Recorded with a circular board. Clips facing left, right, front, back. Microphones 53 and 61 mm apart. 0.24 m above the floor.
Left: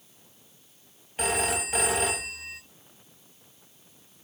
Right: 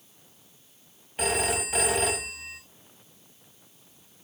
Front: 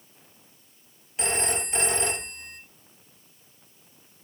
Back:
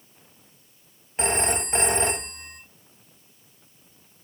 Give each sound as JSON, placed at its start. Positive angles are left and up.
{"t": 1.2, "sound": "a phone ringing", "azimuth_deg": 180, "distance_m": 0.7}